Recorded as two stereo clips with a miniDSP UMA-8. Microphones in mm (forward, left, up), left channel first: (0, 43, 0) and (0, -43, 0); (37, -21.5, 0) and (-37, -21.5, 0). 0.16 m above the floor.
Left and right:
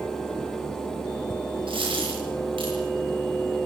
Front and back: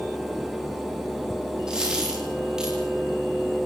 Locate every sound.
1.7 s a dropped coin: 100° right, 8 m